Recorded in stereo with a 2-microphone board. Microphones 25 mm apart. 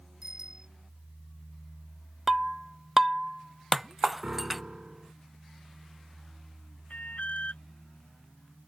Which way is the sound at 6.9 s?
80° left.